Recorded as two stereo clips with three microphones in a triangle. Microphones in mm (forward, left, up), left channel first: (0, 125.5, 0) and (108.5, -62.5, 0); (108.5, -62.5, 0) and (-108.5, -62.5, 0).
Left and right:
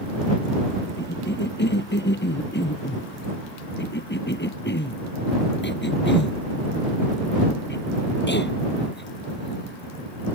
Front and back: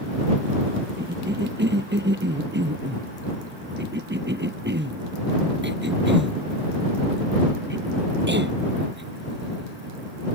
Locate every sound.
1.0 s a cough: 150° left